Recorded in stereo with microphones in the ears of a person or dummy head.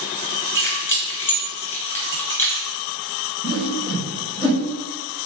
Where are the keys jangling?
10° left (ahead or behind), 1.3 m.